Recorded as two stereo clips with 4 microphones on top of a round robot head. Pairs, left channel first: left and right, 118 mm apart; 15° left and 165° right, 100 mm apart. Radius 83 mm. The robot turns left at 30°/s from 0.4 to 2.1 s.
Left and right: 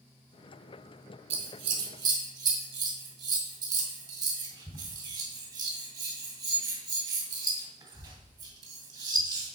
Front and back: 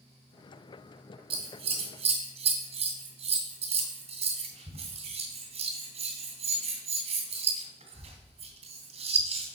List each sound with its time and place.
1.3 s scissors: 125° right, 1.7 m; by 9.6 s 150° right, 1.7 m